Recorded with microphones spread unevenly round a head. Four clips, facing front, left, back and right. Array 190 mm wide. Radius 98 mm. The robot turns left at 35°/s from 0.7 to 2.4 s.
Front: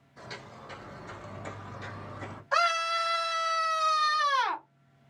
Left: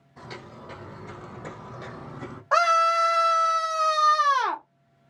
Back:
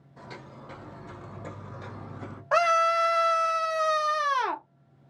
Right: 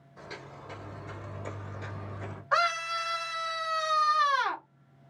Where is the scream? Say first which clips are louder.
Left 8 dB, back 5 dB; 145° left, 0.6 m.